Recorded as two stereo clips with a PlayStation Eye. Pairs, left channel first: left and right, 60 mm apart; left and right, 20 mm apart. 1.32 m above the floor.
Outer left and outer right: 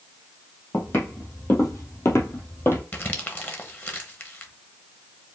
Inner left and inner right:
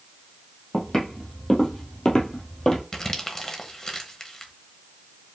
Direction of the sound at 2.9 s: 35° left (ahead or behind).